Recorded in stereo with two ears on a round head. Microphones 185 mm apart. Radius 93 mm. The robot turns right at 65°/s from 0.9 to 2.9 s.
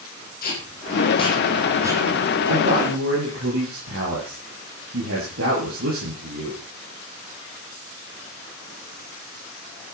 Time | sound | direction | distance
0.4 | tape being pulled | 45° left (ahead or behind) | 9 m
2.5 | a man speaking | 45° right (ahead or behind) | 9.5 m